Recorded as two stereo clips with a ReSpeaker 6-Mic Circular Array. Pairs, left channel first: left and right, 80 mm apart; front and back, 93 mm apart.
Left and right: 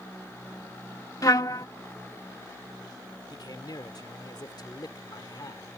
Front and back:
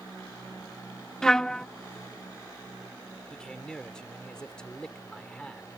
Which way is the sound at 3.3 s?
80° left.